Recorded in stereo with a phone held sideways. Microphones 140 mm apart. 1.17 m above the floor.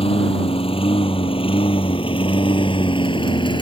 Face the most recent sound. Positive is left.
turn(degrees=35)  # may be behind; listen again after turning